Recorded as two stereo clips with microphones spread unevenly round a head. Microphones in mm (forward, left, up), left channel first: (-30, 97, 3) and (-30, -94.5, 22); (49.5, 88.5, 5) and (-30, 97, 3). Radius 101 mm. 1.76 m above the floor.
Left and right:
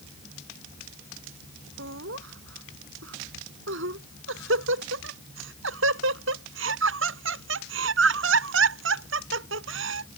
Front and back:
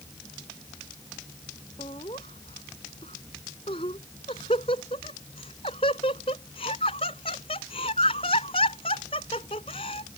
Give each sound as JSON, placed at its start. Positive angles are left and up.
{"t": 1.8, "sound": "laughter", "azimuth_deg": -55}